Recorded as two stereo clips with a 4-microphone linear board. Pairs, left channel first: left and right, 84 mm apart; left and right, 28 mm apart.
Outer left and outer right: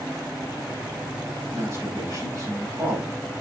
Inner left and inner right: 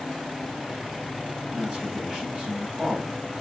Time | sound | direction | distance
1.5 | a man speaking | 40° right (ahead or behind) | 5.5 m